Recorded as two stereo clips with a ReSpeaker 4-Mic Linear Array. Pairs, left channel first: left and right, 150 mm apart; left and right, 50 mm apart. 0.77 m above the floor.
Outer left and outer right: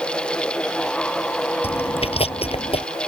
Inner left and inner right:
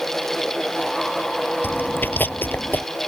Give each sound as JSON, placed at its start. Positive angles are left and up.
{"t": 1.6, "sound": "chewing", "side_deg": 40}